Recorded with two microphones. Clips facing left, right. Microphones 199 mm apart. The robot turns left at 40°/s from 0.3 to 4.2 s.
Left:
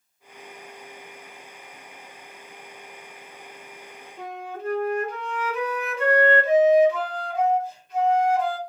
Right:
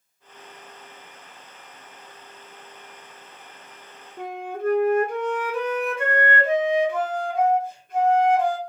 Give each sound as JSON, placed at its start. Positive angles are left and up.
{"t": 4.2, "sound": "a flute", "side_deg": -50, "distance_m": 1.1}